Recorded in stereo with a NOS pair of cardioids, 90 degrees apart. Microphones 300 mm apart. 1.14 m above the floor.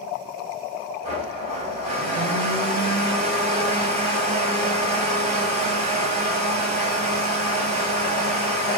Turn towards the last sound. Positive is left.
turn(degrees=-20)